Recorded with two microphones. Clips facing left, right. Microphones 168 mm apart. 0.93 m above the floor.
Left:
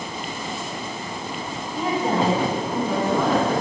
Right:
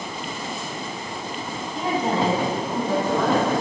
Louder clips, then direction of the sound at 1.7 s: Left 1 dB; 20° right (ahead or behind).